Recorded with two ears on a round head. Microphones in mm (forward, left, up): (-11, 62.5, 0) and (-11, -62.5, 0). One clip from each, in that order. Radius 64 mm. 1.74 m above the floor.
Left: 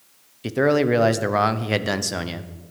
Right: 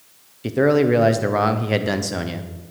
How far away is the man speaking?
About 0.9 m.